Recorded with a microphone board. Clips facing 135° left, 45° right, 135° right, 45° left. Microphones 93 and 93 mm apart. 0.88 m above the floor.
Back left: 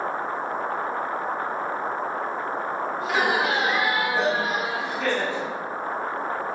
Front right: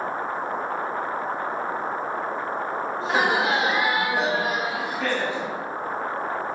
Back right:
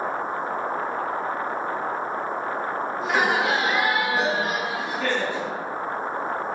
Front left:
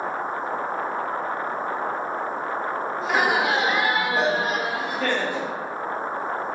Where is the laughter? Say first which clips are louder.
Front right 1 dB, front left 1 dB; 50° right, 0.8 m; by 5.5 s 35° left, 1.4 m.